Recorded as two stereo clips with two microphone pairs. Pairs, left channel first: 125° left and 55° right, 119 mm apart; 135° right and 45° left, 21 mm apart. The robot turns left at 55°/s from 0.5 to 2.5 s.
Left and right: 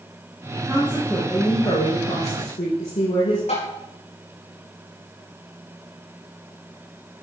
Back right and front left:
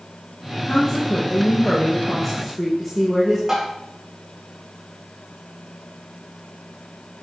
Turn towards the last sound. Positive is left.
turn(degrees=115)